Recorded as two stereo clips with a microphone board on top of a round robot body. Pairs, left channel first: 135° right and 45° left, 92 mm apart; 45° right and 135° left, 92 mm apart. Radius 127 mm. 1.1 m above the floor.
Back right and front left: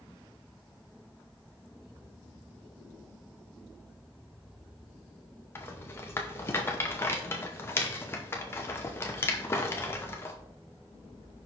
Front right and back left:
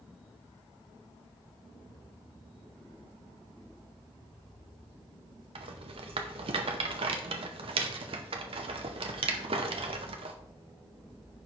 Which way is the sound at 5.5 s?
160° left.